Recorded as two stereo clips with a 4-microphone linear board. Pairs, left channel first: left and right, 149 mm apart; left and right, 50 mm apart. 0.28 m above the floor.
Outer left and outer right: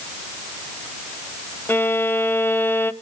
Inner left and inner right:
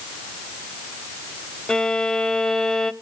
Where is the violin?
15° left (ahead or behind), 0.5 m.